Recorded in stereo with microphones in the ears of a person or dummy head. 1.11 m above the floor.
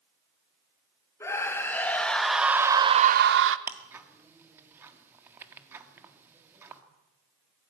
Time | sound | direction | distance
1.2 | a scream | 15° left (ahead or behind) | 2.5 m
3.7 | ticking | 10° right (ahead or behind) | 1.5 m